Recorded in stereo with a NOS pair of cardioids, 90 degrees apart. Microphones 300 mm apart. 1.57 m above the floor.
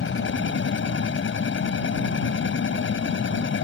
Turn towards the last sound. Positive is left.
turn(degrees=45)